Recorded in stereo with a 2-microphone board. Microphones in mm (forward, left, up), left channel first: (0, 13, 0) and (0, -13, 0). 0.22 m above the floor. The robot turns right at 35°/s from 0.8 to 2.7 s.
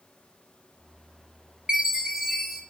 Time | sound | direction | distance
1.7 | a chime | 35° right | 1.3 m